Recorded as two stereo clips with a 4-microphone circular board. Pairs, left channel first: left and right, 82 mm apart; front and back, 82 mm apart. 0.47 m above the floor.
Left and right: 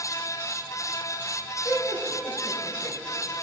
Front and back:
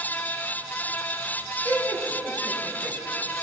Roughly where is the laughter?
Left.